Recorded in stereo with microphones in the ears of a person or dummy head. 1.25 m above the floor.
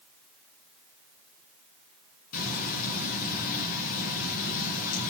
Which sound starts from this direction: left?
Frying, at 2.3 s.